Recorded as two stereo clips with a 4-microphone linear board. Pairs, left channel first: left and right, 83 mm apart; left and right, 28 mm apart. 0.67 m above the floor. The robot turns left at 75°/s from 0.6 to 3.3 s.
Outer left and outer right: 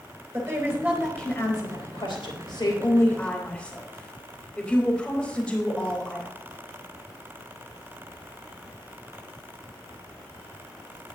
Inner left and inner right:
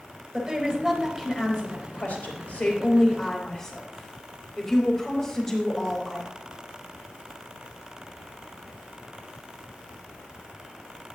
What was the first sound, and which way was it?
A woman speaking, 145° right.